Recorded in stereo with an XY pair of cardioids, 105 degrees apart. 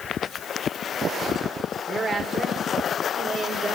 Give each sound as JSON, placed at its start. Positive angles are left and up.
{"t": 1.9, "sound": "a woman speaking", "azimuth_deg": -35, "distance_m": 4.0}